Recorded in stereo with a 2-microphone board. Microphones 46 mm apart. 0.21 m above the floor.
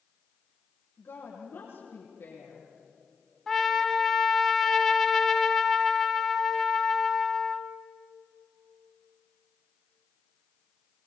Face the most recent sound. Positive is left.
turn(degrees=5)  # may be behind; listen again after turning